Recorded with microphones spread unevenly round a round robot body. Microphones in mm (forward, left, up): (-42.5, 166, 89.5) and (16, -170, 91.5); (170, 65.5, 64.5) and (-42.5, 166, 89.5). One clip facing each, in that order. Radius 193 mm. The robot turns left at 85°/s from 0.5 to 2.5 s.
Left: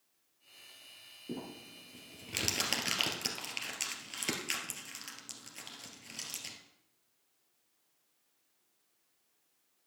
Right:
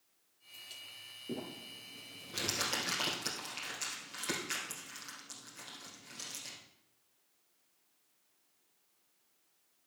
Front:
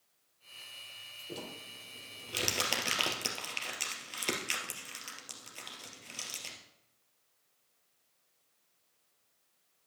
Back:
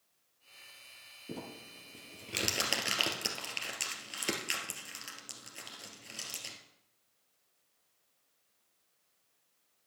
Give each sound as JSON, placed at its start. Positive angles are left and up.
{"t": 1.3, "sound": "crumpling", "azimuth_deg": 180, "distance_m": 2.5}